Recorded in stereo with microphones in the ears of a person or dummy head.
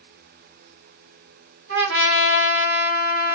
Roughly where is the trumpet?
Right.